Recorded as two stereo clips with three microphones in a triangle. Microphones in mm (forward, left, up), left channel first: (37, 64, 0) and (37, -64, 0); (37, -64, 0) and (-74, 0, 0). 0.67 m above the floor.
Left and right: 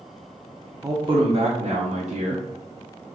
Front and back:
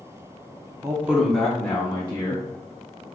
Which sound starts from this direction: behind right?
A man speaking, at 0.8 s.